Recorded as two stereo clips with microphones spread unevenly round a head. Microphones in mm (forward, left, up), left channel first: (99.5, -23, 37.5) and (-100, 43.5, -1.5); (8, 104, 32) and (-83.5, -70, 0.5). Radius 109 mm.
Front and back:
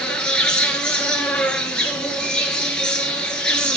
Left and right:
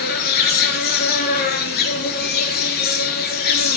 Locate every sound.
0.0 s an insect: 60° left, 1.8 m